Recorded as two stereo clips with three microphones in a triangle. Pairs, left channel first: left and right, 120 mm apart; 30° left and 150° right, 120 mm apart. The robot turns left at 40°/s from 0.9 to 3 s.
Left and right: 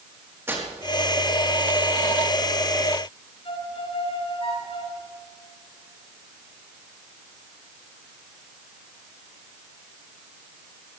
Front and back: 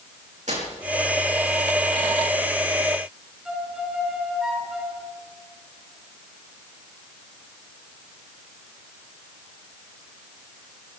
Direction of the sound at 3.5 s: 125° left.